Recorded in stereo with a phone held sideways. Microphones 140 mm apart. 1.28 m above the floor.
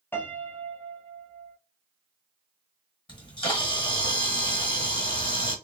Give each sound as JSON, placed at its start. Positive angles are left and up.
{"t": 0.1, "sound": "a piano", "side_deg": 15, "distance_m": 0.6}
{"t": 3.1, "sound": "a camera shutter", "side_deg": 30, "distance_m": 1.1}